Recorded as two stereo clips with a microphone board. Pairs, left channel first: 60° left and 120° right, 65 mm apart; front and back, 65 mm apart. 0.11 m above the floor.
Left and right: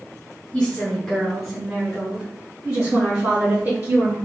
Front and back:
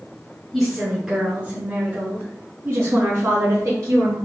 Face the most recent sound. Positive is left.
turn(degrees=-160)